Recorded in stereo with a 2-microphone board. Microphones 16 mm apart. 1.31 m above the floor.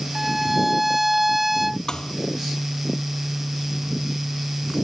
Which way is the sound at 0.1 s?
15° right (ahead or behind).